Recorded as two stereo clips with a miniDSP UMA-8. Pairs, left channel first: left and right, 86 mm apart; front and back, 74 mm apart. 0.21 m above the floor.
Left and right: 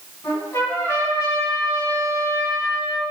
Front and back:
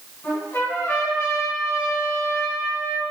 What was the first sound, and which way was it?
A trumpet, 45° left.